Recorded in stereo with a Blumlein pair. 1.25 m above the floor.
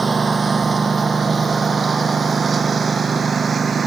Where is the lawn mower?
15° right.